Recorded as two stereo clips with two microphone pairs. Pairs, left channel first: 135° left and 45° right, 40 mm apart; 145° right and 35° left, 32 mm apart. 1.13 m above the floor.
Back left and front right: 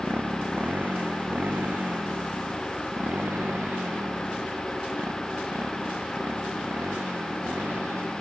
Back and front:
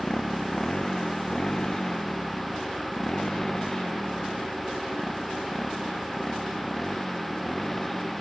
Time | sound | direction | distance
0.0 | a motorcycle | 85° right | ?